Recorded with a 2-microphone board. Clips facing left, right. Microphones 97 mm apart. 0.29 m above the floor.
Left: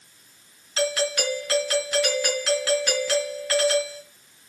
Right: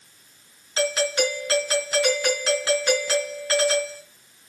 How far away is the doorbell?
About 4 m.